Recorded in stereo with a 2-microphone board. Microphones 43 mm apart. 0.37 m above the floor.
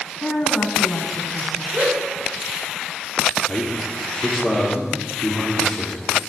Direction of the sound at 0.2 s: 25° left (ahead or behind).